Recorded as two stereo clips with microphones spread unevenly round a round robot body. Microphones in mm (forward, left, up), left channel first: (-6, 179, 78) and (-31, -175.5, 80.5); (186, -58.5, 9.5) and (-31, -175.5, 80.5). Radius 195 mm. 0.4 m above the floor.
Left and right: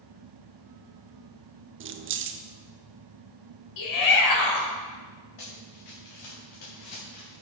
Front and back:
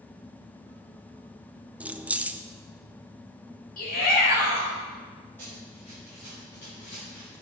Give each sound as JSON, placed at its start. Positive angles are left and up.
{"t": 1.8, "sound": "keys jangling", "azimuth_deg": -50, "distance_m": 0.7}
{"t": 3.8, "sound": "a shout", "azimuth_deg": 65, "distance_m": 2.5}
{"t": 5.4, "sound": "running footsteps", "azimuth_deg": 115, "distance_m": 3.5}